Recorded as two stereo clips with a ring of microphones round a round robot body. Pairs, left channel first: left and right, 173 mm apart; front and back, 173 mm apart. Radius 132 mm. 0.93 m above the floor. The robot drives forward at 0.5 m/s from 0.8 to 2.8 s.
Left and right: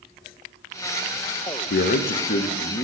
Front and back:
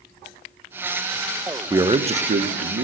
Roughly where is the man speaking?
Left.